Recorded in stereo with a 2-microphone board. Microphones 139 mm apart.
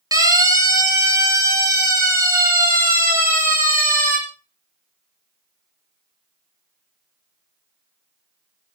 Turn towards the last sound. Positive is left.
turn(degrees=-20)  # may be behind; listen again after turning